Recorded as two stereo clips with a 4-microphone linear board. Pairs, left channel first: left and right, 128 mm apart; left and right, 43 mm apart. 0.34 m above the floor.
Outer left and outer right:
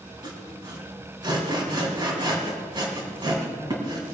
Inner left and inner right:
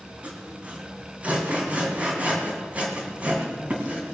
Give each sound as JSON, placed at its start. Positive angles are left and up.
{"t": 0.2, "sound": "sawing", "side_deg": -35, "distance_m": 2.5}